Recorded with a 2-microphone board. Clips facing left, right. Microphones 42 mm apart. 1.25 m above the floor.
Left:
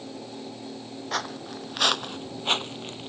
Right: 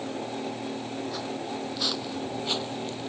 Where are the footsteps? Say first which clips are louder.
Left 1 dB; 70° left (ahead or behind); by 3.1 s 35° left (ahead or behind).